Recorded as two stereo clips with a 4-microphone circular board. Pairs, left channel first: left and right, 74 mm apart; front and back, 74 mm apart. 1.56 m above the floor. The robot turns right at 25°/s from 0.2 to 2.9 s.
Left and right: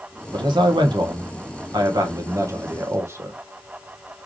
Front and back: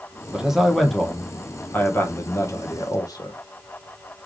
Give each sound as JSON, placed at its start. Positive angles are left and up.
{"t": 0.3, "sound": "a man speaking", "azimuth_deg": -100, "distance_m": 1.4}